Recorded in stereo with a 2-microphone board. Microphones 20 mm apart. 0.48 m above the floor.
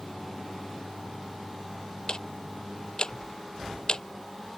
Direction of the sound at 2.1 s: 45° left (ahead or behind).